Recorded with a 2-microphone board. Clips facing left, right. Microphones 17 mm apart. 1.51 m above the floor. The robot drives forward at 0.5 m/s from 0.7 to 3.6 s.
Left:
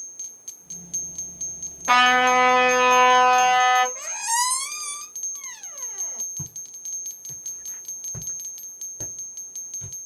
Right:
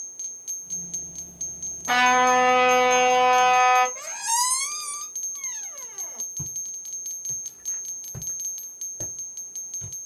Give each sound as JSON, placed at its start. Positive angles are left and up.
{"t": 1.9, "sound": "a trumpet", "side_deg": 50, "distance_m": 2.0}
{"t": 4.0, "sound": "a squeak", "side_deg": 5, "distance_m": 0.8}
{"t": 6.4, "sound": "footsteps", "side_deg": 25, "distance_m": 3.5}